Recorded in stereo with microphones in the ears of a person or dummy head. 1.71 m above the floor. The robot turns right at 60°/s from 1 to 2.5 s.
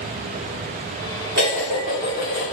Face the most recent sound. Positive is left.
turn(degrees=-10)